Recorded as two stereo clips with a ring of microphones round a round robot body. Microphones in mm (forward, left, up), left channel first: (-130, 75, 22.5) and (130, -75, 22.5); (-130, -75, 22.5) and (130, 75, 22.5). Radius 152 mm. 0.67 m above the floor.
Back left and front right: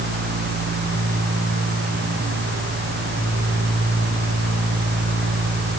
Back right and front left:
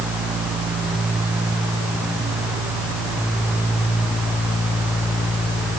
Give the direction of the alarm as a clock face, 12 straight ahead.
I don't hear an alarm.